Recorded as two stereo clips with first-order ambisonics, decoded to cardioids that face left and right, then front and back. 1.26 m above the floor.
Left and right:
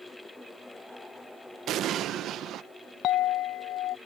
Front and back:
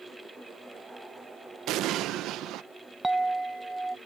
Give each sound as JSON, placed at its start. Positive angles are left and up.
{"t": 1.7, "sound": "an explosion", "azimuth_deg": -140}
{"t": 3.0, "sound": "a clink", "azimuth_deg": 105}